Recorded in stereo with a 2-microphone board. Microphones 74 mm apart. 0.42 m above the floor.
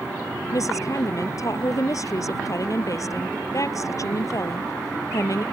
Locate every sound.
0.5 s a woman speaking: 50° left (ahead or behind)